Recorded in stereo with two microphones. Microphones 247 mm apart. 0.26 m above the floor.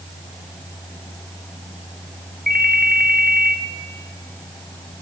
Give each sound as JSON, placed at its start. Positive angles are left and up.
{"t": 2.5, "sound": "a ringtone", "side_deg": -35, "distance_m": 1.9}